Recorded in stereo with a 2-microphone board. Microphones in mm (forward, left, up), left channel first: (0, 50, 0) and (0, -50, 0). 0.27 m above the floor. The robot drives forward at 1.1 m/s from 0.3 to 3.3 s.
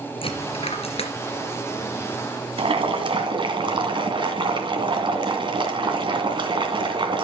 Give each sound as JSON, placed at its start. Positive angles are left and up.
{"t": 0.2, "sound": "a dropped coin", "side_deg": 60, "distance_m": 2.5}
{"t": 2.6, "sound": "boiling", "side_deg": -60, "distance_m": 2.0}